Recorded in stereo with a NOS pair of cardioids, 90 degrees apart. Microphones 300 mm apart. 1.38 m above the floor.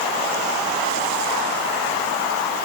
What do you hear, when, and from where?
Only background noise.